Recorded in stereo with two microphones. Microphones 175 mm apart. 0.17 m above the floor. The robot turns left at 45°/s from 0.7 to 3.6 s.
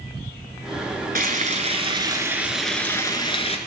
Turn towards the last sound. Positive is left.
turn(degrees=135)